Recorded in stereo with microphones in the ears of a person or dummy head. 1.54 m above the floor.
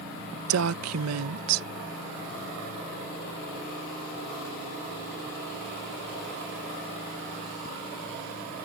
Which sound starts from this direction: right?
A woman speaking, at 0.5 s.